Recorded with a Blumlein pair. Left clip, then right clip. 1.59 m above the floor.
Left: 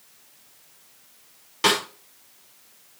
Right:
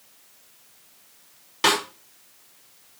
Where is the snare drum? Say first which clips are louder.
Even; 5° right, 6 m.